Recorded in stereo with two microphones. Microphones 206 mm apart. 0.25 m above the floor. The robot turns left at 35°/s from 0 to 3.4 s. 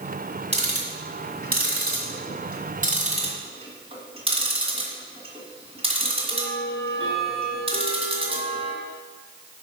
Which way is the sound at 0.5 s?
30° right (ahead or behind).